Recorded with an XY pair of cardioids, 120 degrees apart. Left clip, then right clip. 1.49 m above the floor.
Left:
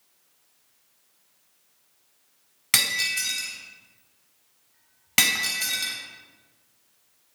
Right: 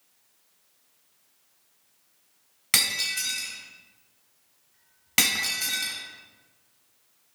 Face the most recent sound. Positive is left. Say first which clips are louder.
# left 2 dB
turn(degrees=10)